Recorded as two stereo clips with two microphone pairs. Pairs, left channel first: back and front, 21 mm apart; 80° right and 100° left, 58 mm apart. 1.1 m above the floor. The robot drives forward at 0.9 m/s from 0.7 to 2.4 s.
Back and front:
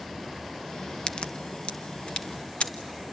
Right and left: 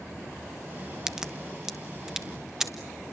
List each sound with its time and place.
1.1 s a crack: straight behind, 0.9 m